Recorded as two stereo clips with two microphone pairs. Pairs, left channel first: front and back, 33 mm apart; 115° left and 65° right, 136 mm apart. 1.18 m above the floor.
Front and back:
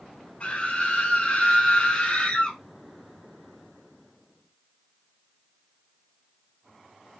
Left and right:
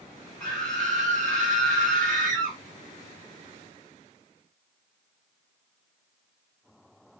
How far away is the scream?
About 1.7 m.